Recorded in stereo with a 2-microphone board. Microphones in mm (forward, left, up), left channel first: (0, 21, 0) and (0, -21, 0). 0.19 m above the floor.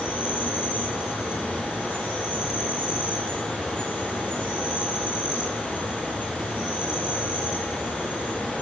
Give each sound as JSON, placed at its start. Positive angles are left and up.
{"t": 0.0, "sound": "an insect", "side_deg": 30, "distance_m": 3.5}